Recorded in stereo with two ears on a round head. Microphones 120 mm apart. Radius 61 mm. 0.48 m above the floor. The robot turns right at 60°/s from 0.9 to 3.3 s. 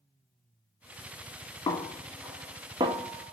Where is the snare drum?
30° left (ahead or behind), 0.6 m; by 3.3 s 55° right (ahead or behind), 0.6 m.